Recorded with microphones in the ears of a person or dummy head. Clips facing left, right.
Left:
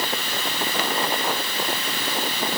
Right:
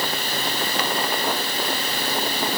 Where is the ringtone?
I don't hear a ringtone.